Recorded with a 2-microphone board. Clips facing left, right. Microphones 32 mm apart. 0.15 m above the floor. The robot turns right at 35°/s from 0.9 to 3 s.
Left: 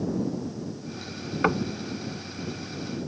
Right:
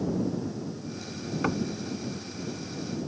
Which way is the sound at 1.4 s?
25° left (ahead or behind).